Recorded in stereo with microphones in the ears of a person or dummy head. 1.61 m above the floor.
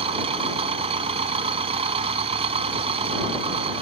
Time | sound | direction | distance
0.0 | an engine running | 35° right (ahead or behind) | ?